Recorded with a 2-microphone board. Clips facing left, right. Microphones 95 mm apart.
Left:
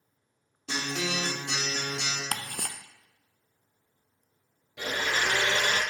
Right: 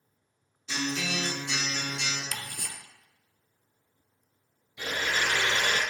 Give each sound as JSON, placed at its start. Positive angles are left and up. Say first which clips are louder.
{"t": 0.7, "sound": "a guitar", "louder": "even", "side_deg": 60, "distance_m": 3.0}
{"t": 2.3, "sound": "ticking", "louder": "left 4 dB", "side_deg": 55, "distance_m": 0.5}
{"t": 4.8, "sound": "a blender", "louder": "left 1 dB", "side_deg": 80, "distance_m": 4.0}